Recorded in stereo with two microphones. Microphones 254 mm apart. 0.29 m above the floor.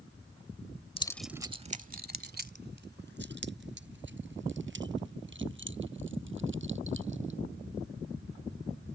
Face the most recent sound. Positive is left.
turn(degrees=-50)  # may be behind; listen again after turning